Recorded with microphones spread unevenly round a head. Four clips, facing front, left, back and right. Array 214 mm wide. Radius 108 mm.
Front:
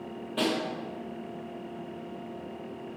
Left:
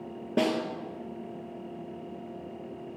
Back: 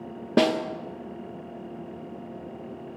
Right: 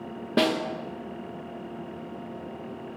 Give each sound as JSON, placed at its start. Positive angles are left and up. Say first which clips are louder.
{"t": 0.4, "sound": "a snare drum", "louder": "right 3 dB, back 7 dB", "azimuth_deg": -170, "distance_m": 0.9}